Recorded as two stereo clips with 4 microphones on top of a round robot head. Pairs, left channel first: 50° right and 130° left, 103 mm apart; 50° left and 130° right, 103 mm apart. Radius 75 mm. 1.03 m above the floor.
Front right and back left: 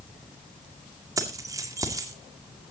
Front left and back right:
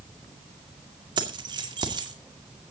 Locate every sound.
1.2 s keys jangling: 175° right, 2 m